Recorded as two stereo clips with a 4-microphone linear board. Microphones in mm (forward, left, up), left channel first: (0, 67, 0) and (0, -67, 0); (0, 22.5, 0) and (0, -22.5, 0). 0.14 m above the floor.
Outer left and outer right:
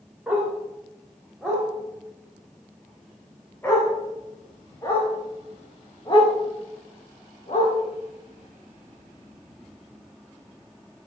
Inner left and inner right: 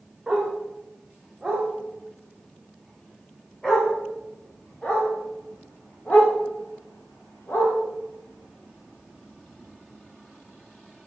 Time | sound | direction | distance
0.3 | a dog barking | 10° right (ahead or behind) | 5.5 m